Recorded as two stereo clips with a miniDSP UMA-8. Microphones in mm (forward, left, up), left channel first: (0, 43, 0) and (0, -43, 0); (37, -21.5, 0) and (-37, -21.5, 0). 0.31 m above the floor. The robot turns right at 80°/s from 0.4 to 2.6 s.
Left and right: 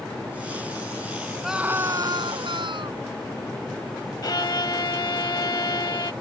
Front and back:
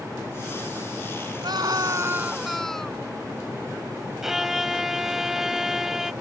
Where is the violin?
95° left.